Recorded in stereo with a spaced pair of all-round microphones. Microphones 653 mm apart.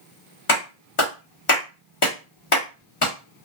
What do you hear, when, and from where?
0.5 s a clap: 50° left (ahead or behind), 1.3 m